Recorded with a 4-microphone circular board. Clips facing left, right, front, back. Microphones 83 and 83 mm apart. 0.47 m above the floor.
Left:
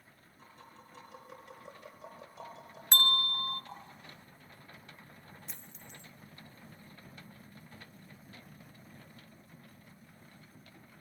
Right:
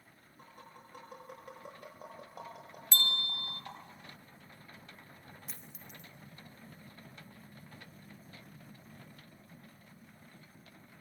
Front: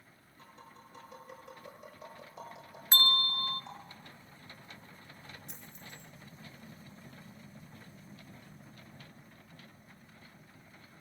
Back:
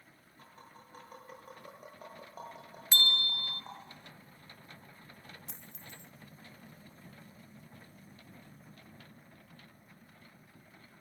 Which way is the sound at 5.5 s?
175° right.